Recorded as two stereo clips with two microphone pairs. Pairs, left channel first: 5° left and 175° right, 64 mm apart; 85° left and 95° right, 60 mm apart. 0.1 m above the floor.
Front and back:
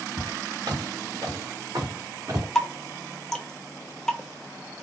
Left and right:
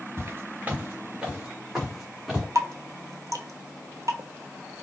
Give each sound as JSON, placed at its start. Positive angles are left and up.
{"t": 0.2, "sound": "footsteps", "azimuth_deg": -150, "distance_m": 1.8}
{"t": 2.5, "sound": "dripping", "azimuth_deg": -80, "distance_m": 0.6}